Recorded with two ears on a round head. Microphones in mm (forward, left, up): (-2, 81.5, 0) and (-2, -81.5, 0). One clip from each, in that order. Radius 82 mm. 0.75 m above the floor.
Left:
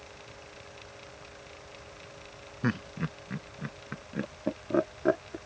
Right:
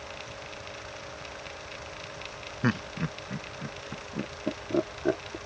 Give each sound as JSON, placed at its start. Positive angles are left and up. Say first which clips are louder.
{"t": 2.6, "sound": "laughter", "louder": "right 3 dB", "side_deg": -15}